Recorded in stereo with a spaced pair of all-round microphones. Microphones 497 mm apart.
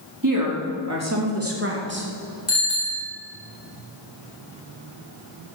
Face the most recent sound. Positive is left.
turn(degrees=75)  # may be behind; listen again after turning